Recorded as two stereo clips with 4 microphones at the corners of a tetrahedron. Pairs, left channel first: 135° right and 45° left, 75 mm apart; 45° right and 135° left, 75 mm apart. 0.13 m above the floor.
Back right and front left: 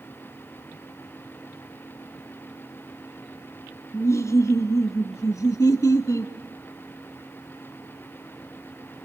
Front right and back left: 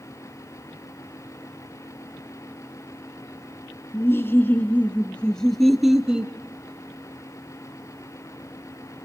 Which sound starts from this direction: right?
Laughter, at 3.9 s.